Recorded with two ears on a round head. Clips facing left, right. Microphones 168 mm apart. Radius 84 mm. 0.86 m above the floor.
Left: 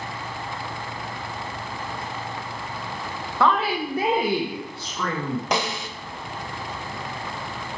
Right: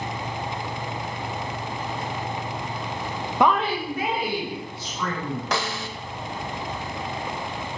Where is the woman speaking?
15° right (ahead or behind), 0.8 m; by 5.4 s 55° left (ahead or behind), 3 m.